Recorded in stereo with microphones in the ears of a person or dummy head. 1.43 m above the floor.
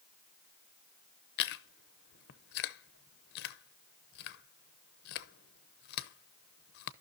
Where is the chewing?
55° left (ahead or behind), 0.7 m.